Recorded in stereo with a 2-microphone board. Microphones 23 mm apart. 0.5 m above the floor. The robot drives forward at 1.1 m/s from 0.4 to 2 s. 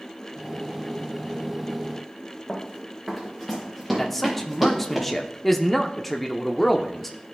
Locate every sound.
2.5 s running footsteps: 5° right (ahead or behind), 2.5 m; by 5.0 s 15° right (ahead or behind), 4 m
4.0 s a man speaking: 10° left (ahead or behind), 0.7 m